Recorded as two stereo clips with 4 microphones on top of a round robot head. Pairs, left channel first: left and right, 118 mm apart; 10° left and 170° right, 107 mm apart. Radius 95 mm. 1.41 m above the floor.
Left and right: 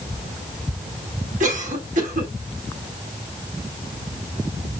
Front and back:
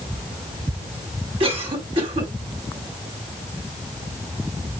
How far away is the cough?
About 4.5 m.